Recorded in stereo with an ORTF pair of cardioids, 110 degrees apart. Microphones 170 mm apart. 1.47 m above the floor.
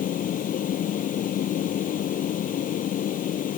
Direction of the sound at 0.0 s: 50° left.